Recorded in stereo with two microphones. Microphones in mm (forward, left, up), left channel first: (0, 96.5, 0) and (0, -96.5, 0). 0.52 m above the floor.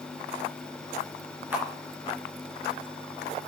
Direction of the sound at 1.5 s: 10° right (ahead or behind).